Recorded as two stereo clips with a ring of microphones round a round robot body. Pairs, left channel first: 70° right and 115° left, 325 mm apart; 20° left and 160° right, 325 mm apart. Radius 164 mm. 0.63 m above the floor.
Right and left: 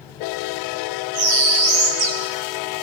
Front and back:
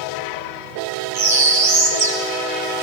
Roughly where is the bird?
Behind left.